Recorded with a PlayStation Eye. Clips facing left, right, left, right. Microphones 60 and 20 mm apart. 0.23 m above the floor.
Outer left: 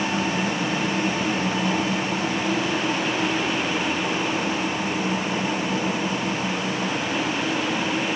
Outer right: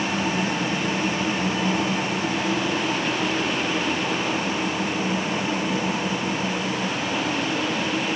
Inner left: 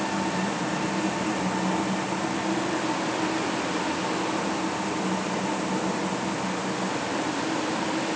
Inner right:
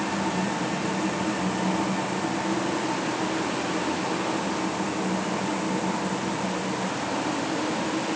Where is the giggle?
No giggle in this recording.